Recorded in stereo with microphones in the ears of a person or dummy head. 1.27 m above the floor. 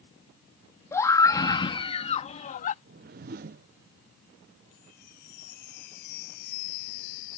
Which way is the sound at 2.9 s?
40° right (ahead or behind).